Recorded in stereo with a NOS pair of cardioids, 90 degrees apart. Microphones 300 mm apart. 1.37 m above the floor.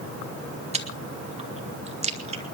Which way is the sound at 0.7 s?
20° right.